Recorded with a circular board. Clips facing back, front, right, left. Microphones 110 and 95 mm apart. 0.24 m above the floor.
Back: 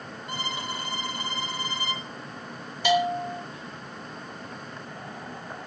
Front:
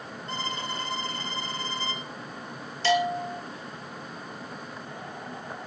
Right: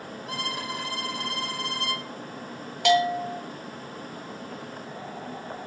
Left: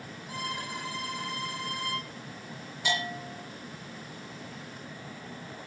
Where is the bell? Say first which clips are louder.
Back 1 dB, right 12 dB; 105° right, 5.5 m.